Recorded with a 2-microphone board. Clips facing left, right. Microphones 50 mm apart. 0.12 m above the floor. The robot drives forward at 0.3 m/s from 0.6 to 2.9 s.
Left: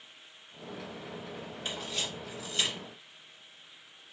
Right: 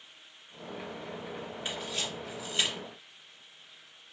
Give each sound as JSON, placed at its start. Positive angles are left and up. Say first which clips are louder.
{"t": 1.6, "sound": "a camera shutter", "louder": "even", "side_deg": -25, "distance_m": 1.9}